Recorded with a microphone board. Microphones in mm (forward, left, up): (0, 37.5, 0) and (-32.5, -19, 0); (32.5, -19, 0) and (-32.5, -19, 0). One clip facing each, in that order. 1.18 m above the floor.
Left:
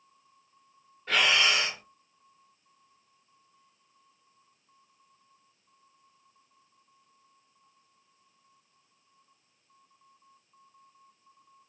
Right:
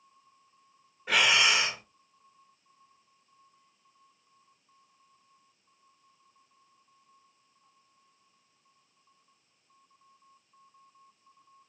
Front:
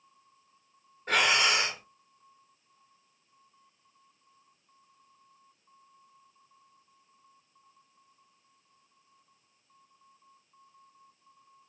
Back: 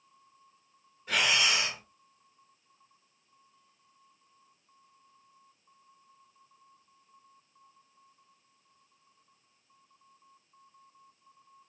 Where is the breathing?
45° right, 1.0 m.